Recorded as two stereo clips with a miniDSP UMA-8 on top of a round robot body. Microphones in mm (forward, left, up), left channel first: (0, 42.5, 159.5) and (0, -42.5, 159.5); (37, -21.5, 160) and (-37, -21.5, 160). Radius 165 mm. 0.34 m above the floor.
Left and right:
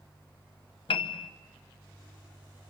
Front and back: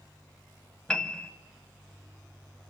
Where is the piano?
80° left, 1.0 m.